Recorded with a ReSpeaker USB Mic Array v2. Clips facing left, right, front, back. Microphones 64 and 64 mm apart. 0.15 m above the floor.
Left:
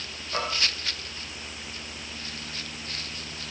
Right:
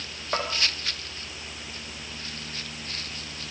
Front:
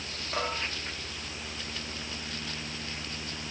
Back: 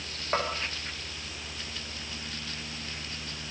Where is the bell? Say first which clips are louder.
Right 1 dB, back 3 dB; 130° right, 8.5 m.